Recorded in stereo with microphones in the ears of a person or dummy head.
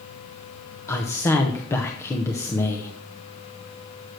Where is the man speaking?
20° left (ahead or behind), 0.8 m.